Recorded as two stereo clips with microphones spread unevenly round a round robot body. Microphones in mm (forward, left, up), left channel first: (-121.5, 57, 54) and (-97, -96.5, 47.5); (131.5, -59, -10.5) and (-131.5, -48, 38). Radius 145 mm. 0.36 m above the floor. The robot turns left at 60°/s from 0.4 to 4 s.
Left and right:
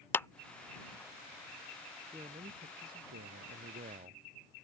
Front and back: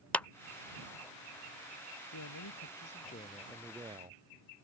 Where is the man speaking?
5° right; by 4.2 s 115° right.